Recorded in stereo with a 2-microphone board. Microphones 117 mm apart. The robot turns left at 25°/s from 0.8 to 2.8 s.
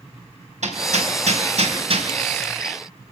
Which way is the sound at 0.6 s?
80° right.